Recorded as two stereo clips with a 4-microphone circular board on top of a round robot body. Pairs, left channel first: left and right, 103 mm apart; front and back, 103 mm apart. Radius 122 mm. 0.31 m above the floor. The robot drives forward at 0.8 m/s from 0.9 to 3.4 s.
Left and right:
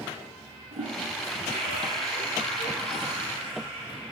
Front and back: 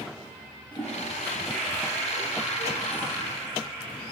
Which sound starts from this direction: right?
A toilet flushing, at 0.7 s.